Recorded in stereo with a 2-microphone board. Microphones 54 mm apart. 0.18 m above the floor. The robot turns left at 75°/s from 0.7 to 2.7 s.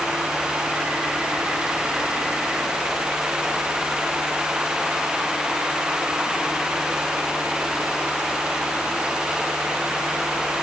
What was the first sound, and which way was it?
Only background noise.